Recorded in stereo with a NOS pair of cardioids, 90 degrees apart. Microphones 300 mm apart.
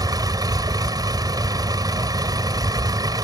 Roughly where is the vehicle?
Ahead.